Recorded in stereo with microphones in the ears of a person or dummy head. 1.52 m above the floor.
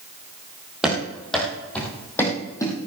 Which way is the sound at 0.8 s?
5° right (ahead or behind).